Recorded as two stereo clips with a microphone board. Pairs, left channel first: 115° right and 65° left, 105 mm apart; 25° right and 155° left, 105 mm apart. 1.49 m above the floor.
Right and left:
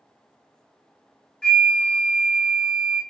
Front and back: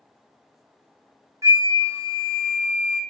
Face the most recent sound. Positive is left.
turn(degrees=175)